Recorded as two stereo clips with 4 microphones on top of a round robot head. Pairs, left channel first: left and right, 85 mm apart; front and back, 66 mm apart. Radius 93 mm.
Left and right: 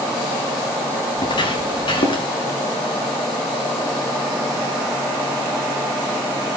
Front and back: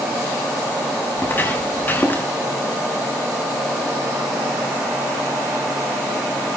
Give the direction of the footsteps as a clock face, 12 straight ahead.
10 o'clock.